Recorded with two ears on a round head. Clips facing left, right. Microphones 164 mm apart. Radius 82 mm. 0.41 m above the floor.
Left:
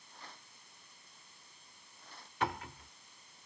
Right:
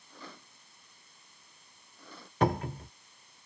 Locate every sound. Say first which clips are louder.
0.1 s a rattle: right 6 dB; 65° right (ahead or behind)
2.4 s a cupboard door: right 9 dB; 35° right (ahead or behind)